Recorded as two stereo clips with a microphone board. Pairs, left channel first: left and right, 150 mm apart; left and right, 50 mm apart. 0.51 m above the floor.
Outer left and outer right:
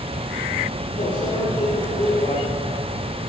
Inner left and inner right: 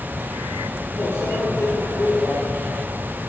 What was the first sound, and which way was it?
A microwave, 60° left (ahead or behind).